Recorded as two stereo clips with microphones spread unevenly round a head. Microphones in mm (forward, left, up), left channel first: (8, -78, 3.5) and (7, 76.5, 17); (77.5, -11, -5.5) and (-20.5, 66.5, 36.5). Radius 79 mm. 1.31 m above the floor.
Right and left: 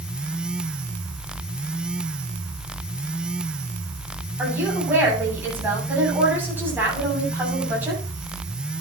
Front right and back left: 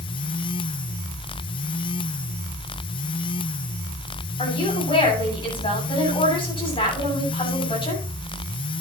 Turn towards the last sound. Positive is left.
turn(degrees=10)